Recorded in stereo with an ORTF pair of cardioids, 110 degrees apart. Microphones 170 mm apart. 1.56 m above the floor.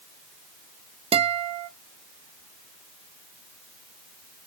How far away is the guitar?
About 0.8 m.